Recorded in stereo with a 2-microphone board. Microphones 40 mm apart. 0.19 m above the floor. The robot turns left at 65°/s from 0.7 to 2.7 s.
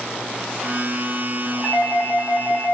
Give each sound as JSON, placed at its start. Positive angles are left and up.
{"t": 1.6, "sound": "a doorbell", "side_deg": 20, "distance_m": 1.8}